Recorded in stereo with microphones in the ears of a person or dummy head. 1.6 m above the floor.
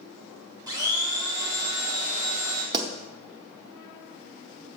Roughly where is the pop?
Right.